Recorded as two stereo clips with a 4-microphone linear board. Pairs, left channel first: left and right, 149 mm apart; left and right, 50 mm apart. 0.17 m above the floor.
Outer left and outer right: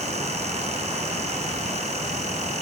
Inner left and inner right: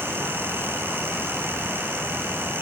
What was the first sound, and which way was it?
Only background noise.